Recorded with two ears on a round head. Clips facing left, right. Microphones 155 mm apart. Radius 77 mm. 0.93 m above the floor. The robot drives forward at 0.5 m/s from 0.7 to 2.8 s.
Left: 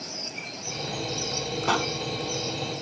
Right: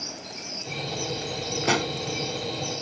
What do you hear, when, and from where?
1.6 s a pop: 20° right (ahead or behind)